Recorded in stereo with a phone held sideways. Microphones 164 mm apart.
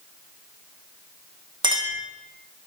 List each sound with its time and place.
1.6 s a clink: 30° right (ahead or behind), 0.6 m